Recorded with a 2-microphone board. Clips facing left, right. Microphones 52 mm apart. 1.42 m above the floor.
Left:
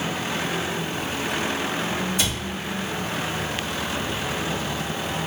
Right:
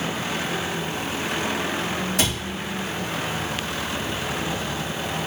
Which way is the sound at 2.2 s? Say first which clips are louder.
Right 2 dB; 85° right.